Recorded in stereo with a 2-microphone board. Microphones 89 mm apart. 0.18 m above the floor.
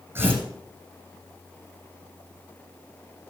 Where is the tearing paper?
25° right (ahead or behind), 8.5 m.